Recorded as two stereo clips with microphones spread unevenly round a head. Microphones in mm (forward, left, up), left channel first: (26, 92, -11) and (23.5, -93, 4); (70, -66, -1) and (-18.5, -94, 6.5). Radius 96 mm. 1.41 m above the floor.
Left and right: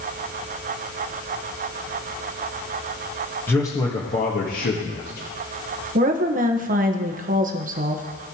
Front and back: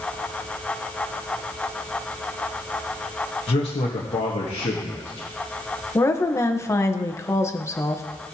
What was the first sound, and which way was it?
A man speaking, 10° left.